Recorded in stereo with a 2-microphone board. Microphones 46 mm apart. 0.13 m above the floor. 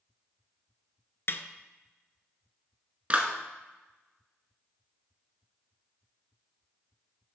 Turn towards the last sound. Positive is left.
turn(degrees=-25)  # may be behind; listen again after turning